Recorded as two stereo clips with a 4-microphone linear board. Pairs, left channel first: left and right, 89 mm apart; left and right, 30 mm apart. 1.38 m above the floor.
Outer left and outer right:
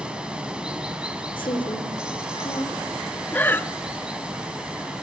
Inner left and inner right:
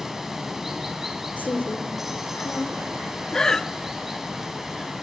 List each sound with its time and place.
0.0 s running water: 10° right (ahead or behind), 4.5 m
1.4 s a woman speaking: 70° left (ahead or behind), 3.5 m
3.3 s breathing: 20° left (ahead or behind), 0.9 m